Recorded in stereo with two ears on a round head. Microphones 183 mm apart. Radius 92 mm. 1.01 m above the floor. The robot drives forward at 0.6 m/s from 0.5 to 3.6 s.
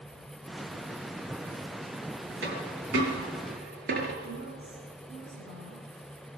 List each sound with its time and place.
2.4 s a dropped coin: 60° right (ahead or behind), 3.5 m; by 4.1 s 50° right (ahead or behind), 4 m
4.2 s a woman speaking: 45° right (ahead or behind), 4.5 m